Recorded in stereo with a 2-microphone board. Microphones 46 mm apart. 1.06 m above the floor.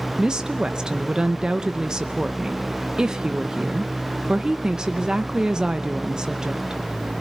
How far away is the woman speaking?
About 0.7 m.